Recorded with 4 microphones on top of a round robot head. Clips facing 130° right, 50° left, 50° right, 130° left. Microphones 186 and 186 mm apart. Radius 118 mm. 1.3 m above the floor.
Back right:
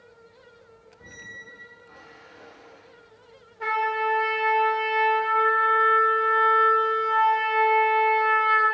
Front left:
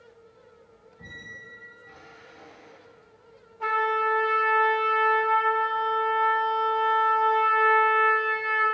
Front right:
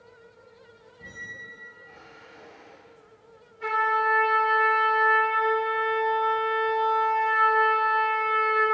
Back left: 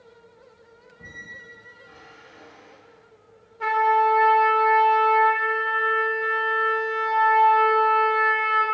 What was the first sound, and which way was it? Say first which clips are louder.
A squeak: front left 3 dB, even; 85° left.